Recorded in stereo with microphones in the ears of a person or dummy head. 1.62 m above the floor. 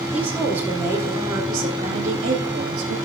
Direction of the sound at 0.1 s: 5° right (ahead or behind).